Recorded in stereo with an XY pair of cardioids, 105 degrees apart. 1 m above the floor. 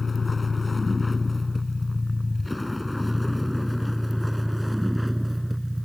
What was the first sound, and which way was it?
A vehicle, 30° left.